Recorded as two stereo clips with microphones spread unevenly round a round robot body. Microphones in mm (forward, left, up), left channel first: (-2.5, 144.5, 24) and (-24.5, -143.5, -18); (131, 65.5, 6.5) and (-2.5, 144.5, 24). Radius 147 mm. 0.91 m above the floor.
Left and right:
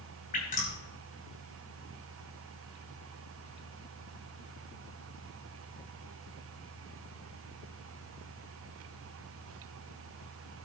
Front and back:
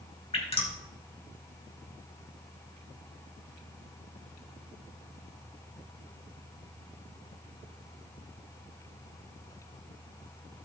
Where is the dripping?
20° left, 5 m.